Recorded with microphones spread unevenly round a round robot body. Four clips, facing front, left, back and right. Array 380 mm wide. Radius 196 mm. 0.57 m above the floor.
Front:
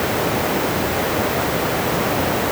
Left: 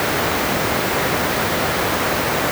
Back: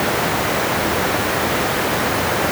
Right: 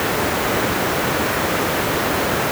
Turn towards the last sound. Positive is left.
No sound to turn to.